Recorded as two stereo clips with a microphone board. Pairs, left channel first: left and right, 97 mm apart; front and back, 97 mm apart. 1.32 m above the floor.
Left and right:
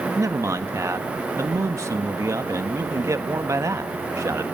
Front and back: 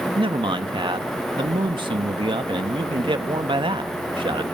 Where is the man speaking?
150° right, 1.6 m.